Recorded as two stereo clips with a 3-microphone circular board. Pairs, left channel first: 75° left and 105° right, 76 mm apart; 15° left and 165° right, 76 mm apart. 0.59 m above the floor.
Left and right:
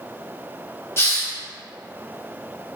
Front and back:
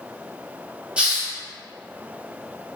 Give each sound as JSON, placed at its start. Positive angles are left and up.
{"t": 1.0, "sound": "a hiss", "azimuth_deg": 125, "distance_m": 1.0}